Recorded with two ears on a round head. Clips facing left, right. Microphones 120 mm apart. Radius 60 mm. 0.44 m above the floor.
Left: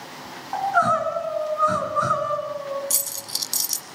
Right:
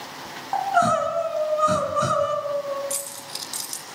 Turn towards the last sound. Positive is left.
turn(degrees=50)  # may be behind; listen again after turning